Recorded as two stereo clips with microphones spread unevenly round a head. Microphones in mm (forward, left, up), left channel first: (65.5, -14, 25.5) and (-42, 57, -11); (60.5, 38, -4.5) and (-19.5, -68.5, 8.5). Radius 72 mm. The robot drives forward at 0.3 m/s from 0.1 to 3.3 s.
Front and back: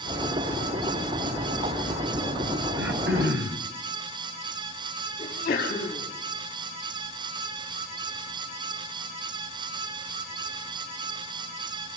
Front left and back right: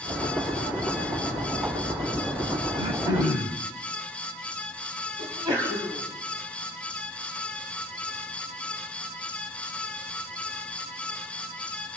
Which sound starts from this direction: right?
A sneeze, at 5.2 s.